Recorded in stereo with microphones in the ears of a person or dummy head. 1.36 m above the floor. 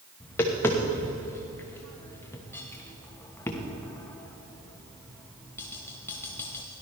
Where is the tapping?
10° left (ahead or behind), 1.2 m.